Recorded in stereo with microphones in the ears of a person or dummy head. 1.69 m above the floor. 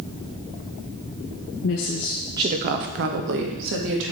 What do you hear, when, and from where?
1.6 s a woman speaking: 60° left (ahead or behind), 1.0 m; by 4.1 s 70° right (ahead or behind), 2.5 m